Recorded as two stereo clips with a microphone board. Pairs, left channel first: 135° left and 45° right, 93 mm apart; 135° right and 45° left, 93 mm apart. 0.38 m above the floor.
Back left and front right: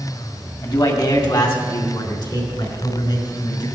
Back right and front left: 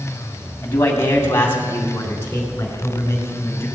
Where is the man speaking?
165° left, 2.5 m; by 3.7 s 160° left, 5.5 m.